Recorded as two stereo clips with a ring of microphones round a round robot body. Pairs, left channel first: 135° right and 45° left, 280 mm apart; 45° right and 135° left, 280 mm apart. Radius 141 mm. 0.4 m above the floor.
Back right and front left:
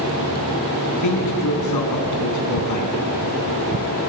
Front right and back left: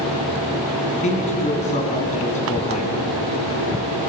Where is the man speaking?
110° right, 3.5 m.